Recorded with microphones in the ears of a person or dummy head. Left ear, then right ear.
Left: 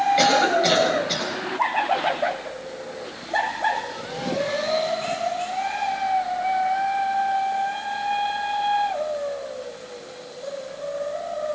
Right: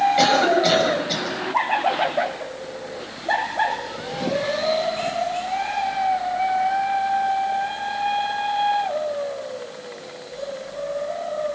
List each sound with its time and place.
0.2 s a cough: centre (ahead or behind), 9 m